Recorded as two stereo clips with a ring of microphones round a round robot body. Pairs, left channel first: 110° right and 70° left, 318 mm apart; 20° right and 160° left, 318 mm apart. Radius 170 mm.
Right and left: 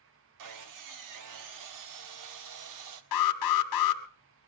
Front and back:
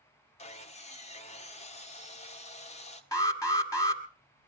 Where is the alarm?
100° right, 2 m.